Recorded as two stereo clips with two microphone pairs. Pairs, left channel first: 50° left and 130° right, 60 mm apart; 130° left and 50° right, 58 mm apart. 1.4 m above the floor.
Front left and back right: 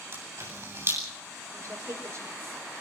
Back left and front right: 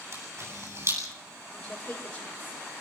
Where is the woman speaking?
140° right, 6 m.